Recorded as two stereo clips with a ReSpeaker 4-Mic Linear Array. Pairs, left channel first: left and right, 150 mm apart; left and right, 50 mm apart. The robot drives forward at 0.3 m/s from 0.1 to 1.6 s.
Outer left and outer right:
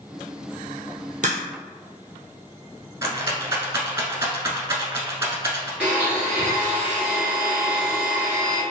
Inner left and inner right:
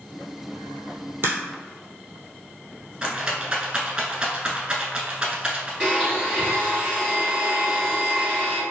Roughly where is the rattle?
Centre.